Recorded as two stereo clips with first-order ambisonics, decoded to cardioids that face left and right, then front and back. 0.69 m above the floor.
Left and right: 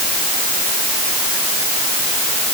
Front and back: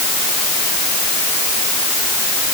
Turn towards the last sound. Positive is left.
No sound to turn to.